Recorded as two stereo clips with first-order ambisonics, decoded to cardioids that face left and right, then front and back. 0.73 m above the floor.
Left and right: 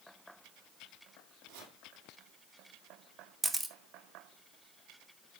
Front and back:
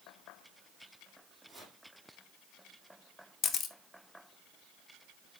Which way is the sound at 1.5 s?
90° right.